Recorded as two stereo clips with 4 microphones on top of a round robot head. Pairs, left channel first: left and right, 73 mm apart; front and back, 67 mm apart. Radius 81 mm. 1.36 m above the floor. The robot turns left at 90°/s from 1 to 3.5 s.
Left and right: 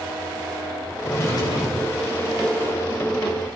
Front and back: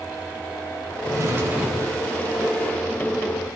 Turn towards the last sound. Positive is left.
turn(degrees=-70)